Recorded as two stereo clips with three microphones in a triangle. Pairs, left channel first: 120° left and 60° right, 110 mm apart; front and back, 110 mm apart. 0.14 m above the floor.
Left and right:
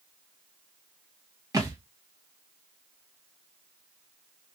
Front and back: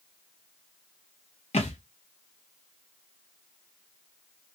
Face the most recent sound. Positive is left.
turn(degrees=-5)